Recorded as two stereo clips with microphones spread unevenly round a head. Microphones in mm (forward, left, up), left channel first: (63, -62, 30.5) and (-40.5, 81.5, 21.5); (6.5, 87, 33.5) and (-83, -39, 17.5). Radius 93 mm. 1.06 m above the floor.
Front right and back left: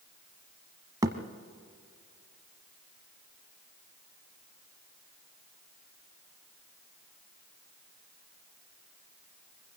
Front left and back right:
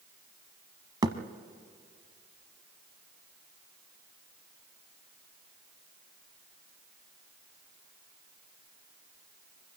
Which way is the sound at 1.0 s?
175° right.